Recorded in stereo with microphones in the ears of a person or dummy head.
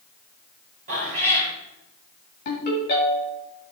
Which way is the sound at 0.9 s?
45° right (ahead or behind).